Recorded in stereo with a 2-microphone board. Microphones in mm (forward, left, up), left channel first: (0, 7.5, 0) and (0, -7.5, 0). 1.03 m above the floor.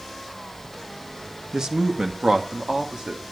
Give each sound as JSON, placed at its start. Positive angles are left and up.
{"t": 1.5, "sound": "a woman speaking", "side_deg": -40, "distance_m": 1.4}